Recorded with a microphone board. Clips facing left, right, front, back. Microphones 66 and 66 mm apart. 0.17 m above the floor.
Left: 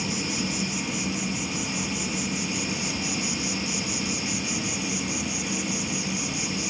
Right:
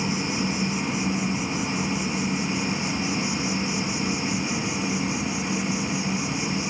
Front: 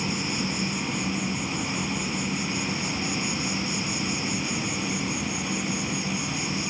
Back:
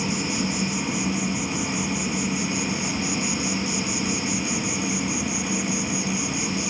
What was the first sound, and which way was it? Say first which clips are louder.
An insect: right 3 dB, back 3 dB; 100° right.